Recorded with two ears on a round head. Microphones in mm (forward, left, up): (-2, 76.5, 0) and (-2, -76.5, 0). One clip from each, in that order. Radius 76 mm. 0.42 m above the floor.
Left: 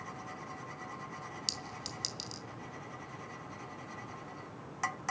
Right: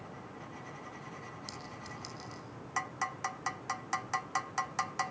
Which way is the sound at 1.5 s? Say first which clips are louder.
Left 10 dB; 70° left (ahead or behind).